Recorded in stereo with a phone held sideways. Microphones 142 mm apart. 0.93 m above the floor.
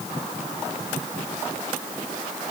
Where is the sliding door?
No sliding door in this recording.